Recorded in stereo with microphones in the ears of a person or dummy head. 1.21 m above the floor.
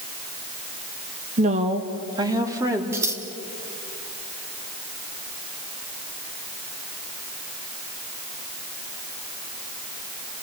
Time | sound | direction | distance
1.4 | a woman speaking | 45° right (ahead or behind) | 1.4 m
2.9 | scissors | 15° right (ahead or behind) | 2.5 m